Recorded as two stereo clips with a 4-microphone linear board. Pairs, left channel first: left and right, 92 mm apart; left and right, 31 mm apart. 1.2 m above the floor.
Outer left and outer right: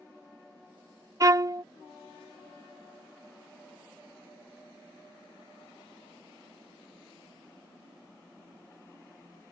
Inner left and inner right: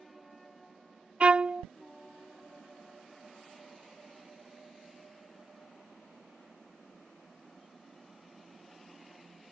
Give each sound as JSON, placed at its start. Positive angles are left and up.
{"t": 1.2, "sound": "a violin", "side_deg": -35}